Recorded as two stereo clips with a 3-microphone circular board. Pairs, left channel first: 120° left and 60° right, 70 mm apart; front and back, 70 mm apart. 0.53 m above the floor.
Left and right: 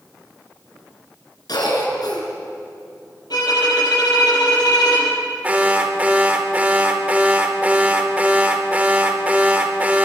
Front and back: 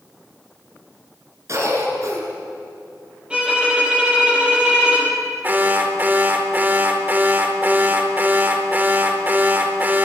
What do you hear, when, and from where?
1.5 s a cough: 135° left, 6 m
3.3 s a violin: 105° left, 7 m
5.4 s an alarm: 125° right, 2 m